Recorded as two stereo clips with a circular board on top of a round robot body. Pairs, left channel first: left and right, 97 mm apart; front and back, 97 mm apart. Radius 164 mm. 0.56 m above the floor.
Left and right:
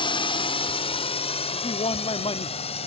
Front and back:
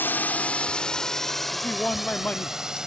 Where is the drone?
65° left; by 2.9 s 95° left.